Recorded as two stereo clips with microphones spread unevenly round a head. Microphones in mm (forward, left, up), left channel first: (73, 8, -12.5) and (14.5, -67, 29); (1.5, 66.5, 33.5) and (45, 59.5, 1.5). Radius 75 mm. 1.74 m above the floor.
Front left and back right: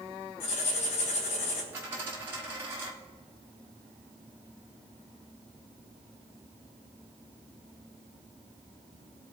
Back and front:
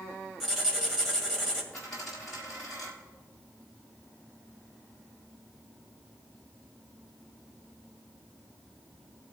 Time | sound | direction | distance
0.4 | writing | 80° left | 2 m
1.7 | a dropped coin | 155° right | 1.6 m